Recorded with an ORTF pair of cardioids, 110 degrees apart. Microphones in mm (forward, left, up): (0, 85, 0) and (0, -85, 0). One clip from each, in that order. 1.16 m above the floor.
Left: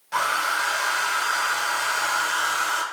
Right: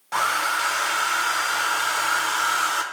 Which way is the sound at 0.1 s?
15° right.